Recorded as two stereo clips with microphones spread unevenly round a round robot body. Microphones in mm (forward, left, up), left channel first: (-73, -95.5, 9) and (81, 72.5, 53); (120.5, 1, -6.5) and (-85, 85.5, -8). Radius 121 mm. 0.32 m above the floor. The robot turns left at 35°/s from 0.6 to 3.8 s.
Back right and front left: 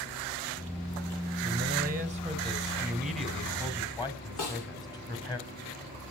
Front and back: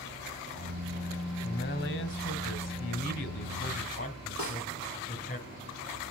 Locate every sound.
1.4 s a man speaking: 10° left, 2 m; by 5.4 s 75° right, 2 m
4.4 s a snare drum: 145° right, 9 m